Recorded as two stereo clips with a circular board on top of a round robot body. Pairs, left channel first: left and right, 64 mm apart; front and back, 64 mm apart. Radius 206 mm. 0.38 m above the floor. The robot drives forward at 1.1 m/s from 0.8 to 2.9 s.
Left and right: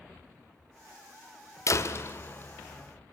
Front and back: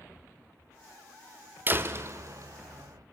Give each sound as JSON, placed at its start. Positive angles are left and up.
{"t": 1.7, "sound": "a door slam", "azimuth_deg": 125, "distance_m": 1.4}